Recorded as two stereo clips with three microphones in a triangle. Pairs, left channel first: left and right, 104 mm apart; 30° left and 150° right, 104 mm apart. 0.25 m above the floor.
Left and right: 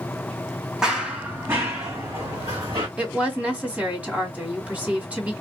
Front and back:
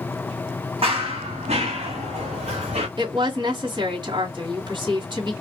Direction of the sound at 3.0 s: 160° right.